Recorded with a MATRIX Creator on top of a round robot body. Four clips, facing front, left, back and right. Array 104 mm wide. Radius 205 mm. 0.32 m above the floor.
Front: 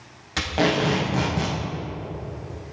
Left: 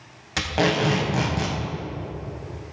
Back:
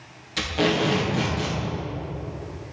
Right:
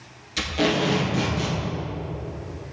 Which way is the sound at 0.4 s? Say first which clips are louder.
Left 1 dB, front 1 dB; 60° left.